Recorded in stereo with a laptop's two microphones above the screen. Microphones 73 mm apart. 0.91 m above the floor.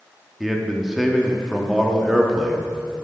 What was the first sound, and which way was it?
A man speaking, 5° right (ahead or behind).